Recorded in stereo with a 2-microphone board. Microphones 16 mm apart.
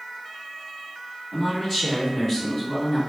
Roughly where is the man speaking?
Centre.